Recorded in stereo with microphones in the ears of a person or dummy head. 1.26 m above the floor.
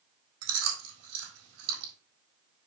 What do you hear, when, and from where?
0.4 s chewing: 85° right, 3.5 m